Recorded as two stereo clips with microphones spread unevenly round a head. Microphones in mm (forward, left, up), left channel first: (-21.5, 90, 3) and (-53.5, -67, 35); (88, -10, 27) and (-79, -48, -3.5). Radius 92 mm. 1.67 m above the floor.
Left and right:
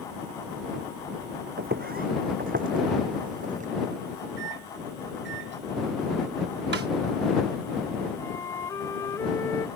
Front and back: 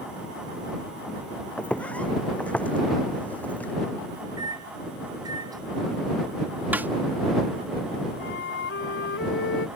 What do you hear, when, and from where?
1.6 s footsteps: 65° right
4.4 s a microwave: 95° right
6.7 s a snare drum: 85° right
8.2 s a flute: straight ahead